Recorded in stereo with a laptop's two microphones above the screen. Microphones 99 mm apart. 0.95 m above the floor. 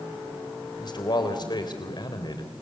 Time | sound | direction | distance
0.8 | a man speaking | 45° left (ahead or behind) | 3.5 m